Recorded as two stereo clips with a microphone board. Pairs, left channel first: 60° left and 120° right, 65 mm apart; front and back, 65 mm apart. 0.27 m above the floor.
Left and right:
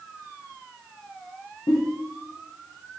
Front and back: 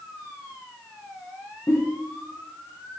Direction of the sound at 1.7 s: 55° left.